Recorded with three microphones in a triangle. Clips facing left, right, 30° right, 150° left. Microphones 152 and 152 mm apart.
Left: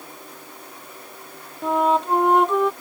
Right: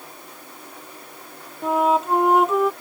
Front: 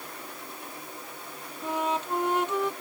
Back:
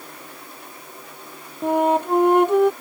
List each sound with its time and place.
1.6 s a flute: 175° right